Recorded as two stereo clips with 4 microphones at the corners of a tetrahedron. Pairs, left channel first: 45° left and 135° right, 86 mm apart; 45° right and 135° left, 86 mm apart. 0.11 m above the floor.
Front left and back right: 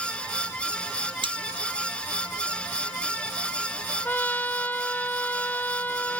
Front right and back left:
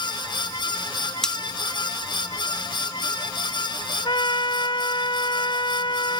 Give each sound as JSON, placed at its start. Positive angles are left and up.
{"t": 1.2, "sound": "cutlery clinking", "azimuth_deg": -130}
{"t": 4.0, "sound": "a trumpet", "azimuth_deg": -25}